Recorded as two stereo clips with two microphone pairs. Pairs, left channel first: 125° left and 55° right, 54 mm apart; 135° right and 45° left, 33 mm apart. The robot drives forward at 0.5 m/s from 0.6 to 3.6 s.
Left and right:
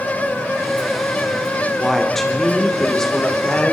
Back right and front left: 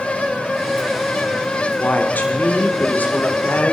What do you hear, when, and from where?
1.8 s a woman speaking: 150° right, 3 m; by 3.7 s 155° right, 3.5 m